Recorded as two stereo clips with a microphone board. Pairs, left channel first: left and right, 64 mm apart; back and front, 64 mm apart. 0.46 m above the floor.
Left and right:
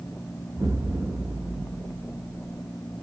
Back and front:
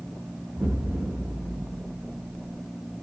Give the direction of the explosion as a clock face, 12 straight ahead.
2 o'clock.